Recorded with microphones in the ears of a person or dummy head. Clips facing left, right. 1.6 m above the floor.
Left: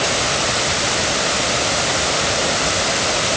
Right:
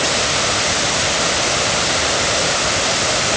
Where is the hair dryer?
No hair dryer in this recording.